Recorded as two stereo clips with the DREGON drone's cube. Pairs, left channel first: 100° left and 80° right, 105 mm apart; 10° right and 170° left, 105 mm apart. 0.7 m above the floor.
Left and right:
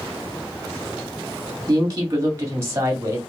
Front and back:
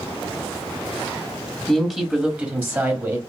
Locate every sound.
1.7 s a woman speaking: 100° right, 1.3 m; by 3.2 s 135° right, 1.6 m